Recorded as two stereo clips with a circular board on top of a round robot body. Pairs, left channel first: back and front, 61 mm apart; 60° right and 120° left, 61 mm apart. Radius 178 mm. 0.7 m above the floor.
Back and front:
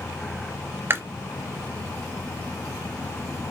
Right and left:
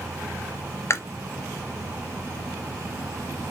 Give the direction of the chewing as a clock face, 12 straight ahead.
1 o'clock.